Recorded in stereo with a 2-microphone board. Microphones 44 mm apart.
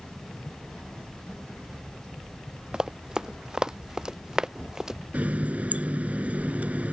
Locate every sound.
2.7 s running footsteps: 20° right (ahead or behind); by 5.0 s 15° right (ahead or behind)
5.1 s a running tap: 35° right (ahead or behind)